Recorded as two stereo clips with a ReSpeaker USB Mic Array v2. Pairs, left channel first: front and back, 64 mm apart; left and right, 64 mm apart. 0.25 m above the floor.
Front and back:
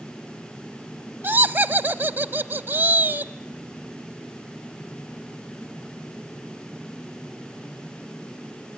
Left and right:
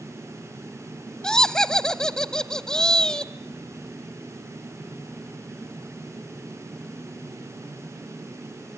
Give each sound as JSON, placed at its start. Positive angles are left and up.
{"t": 1.2, "sound": "laughter", "azimuth_deg": 160, "distance_m": 1.1}